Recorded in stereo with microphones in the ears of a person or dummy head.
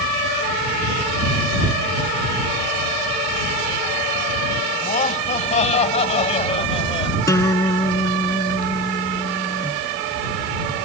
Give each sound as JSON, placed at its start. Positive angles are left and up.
{"t": 4.8, "sound": "laughter", "side_deg": 45}
{"t": 7.3, "sound": "a guitar", "side_deg": 15}